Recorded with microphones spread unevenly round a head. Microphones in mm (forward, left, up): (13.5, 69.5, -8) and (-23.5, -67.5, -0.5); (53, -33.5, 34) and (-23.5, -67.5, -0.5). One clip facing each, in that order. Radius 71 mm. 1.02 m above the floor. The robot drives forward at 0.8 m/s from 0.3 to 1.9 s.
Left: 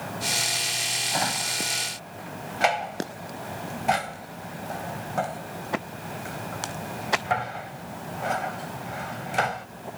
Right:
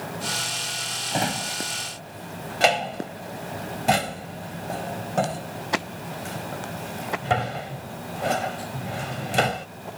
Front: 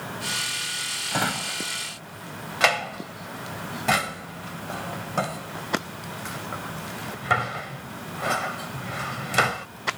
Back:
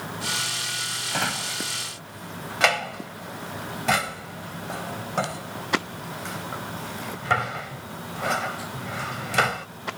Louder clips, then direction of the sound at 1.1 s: Right 3 dB, front 2 dB; 45° right.